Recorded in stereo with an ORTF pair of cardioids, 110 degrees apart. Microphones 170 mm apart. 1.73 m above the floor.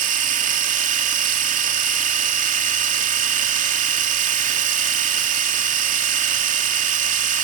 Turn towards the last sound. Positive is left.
turn(degrees=-50)